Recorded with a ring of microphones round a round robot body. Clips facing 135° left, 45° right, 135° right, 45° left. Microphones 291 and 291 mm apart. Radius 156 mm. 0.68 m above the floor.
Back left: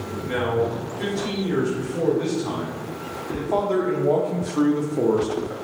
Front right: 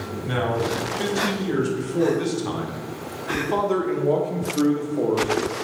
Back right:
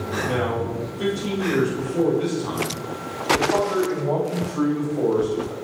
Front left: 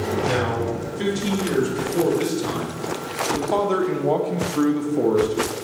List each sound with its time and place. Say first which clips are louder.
0.2 s a man speaking: back left 2 dB, front left 1 dB; 15° right, 4.5 m; by 5.5 s 100° left, 1.6 m